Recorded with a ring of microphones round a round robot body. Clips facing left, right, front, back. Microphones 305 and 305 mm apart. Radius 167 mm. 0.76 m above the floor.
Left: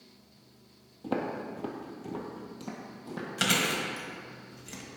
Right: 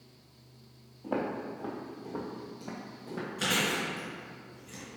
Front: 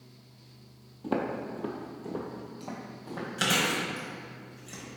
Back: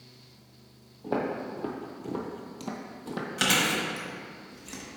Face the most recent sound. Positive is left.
turn(degrees=105)